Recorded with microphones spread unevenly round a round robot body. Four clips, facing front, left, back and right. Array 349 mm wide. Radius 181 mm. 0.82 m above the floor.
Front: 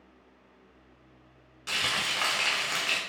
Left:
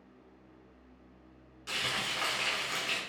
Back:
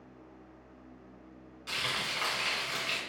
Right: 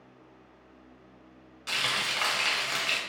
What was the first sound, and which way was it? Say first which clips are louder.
Frying: right 4 dB, front 4 dB; 50° right.